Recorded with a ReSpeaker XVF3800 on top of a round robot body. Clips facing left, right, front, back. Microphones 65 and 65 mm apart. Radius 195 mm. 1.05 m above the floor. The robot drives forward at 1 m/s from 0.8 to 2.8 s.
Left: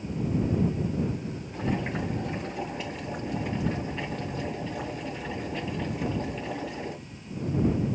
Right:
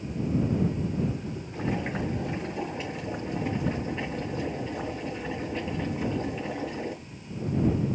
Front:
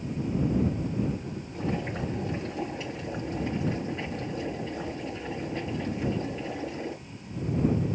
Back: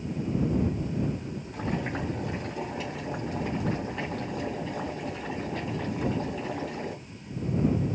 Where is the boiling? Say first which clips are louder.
Even, even; 175° right, 2 m.